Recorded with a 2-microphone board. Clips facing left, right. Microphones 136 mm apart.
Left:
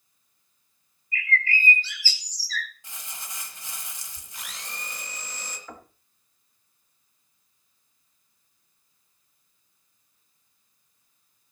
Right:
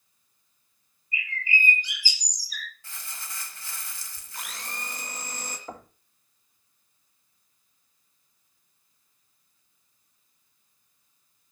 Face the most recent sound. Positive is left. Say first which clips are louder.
# right 3 dB
turn(degrees=-35)  # may be behind; listen again after turning